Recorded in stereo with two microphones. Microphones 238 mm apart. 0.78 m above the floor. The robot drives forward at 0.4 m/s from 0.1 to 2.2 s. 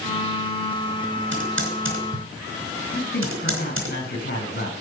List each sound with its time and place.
1.3 s typing on a keyboard: 55° right (ahead or behind), 4 m; by 3.9 s 60° right (ahead or behind), 4 m
2.9 s a man speaking: 45° left (ahead or behind), 6 m